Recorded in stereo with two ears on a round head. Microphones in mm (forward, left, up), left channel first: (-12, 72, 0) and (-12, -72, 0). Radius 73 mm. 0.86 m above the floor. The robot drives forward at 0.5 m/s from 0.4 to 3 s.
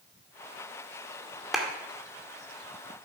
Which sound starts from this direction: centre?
A clap, at 1.5 s.